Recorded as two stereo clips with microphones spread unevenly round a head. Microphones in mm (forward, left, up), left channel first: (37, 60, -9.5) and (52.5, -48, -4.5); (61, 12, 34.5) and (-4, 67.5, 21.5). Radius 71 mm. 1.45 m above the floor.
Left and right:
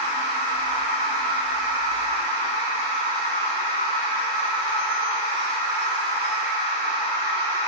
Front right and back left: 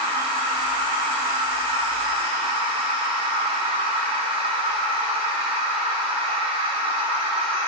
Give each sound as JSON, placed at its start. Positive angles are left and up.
{"t": 0.0, "sound": "a machine running", "azimuth_deg": 150, "distance_m": 1.9}